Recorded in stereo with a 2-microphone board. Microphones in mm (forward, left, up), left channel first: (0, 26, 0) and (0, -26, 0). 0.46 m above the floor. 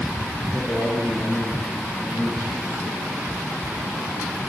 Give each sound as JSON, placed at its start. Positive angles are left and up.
{"t": 0.5, "sound": "a man speaking", "side_deg": 5, "distance_m": 5.5}